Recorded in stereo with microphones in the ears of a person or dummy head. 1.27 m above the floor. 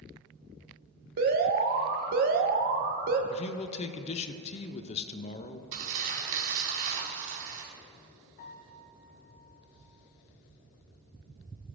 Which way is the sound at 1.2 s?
50° right (ahead or behind).